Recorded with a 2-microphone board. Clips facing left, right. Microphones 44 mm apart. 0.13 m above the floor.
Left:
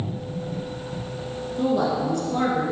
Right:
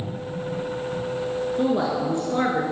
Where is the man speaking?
25° right (ahead or behind), 1.8 m.